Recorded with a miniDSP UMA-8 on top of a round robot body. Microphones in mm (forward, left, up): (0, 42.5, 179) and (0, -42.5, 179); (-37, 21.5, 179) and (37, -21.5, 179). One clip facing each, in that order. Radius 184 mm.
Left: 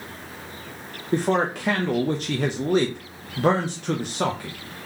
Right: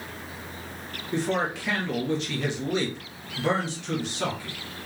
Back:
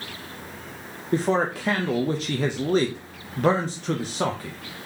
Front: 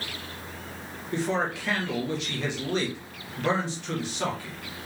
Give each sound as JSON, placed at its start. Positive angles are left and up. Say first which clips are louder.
{"t": 1.1, "sound": "a man speaking", "louder": "left 5 dB, back 5 dB", "azimuth_deg": 120, "distance_m": 0.8}